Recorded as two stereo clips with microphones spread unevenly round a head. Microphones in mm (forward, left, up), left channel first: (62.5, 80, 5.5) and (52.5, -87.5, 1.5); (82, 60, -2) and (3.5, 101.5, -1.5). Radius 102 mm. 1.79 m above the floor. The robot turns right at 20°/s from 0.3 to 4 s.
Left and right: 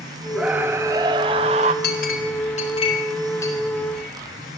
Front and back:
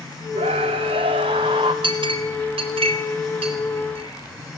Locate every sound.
0.3 s a scream: straight behind, 1.0 m; by 1.7 s 150° right, 1.0 m
1.8 s a clink: 130° left, 4 m; by 4.6 s 175° left, 4 m